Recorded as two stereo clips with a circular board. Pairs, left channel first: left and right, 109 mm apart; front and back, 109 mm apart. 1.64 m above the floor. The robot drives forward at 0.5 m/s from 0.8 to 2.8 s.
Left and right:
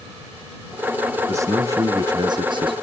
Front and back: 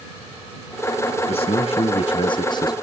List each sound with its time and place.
1.3 s a man speaking: 25° right, 1.4 m; by 2.7 s 50° right, 0.8 m